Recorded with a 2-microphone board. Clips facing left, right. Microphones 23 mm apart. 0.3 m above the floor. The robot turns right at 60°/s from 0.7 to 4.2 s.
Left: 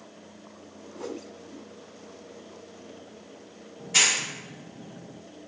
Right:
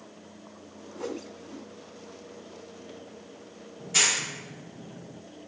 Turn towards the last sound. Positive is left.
turn(degrees=0)  # may be behind; listen again after turning